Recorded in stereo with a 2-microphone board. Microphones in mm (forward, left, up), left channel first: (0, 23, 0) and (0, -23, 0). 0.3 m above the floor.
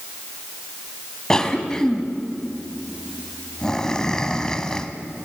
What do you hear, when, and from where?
1.3 s a cough: 15° left (ahead or behind), 2 m